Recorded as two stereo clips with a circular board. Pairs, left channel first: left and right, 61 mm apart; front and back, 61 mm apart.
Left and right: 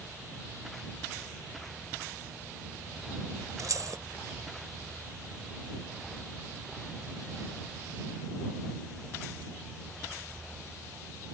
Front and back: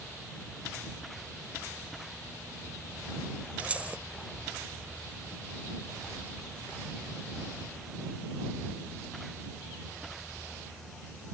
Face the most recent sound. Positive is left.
turn(degrees=-110)